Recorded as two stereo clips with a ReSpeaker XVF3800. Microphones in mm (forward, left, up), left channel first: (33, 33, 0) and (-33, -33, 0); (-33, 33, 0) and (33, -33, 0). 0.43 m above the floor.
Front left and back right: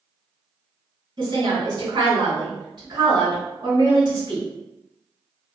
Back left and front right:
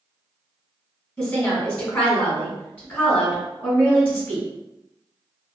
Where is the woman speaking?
160° right, 1.8 m.